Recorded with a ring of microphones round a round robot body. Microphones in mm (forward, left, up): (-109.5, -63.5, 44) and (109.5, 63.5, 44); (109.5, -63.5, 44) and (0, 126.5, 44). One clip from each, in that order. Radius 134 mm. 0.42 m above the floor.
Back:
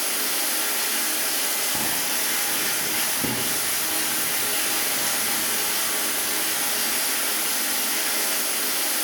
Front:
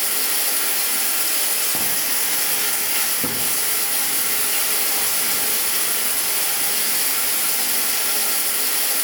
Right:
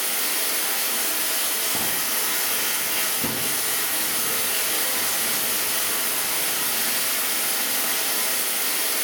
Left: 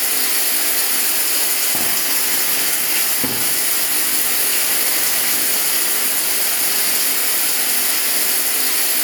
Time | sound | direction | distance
0.0 | running water | 90° left | 1.2 m